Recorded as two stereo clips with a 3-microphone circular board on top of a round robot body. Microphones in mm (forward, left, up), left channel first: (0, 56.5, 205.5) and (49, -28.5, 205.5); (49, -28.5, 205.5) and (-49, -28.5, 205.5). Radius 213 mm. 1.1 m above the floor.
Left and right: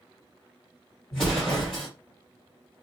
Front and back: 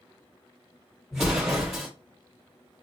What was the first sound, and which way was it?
An explosion, 105° left.